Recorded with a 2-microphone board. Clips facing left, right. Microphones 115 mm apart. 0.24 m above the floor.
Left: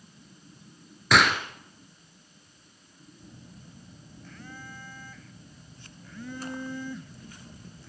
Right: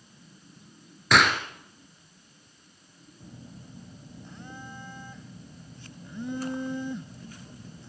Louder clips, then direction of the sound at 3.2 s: Right 4 dB; 20° right (ahead or behind).